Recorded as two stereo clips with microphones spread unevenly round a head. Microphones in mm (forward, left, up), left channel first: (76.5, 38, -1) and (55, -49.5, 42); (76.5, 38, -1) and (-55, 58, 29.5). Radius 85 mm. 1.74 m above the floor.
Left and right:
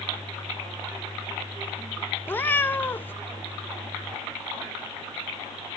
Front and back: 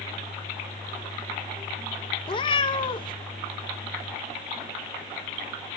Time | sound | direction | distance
2.3 | a cat meowing | 25° right | 0.9 m